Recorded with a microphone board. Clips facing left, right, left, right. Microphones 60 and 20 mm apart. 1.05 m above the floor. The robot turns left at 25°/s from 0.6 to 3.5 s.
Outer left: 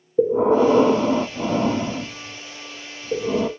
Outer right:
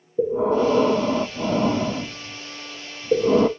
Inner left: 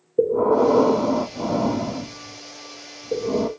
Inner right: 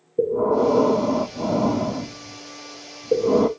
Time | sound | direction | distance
0.2 | breathing | 30° left | 0.6 m